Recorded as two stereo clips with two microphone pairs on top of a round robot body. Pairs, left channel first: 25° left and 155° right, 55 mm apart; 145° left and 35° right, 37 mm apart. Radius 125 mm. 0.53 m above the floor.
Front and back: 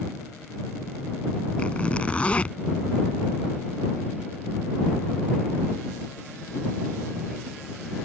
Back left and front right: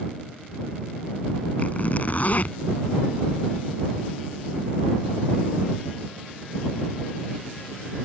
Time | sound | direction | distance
1.6 | a zipper | 95° left | ?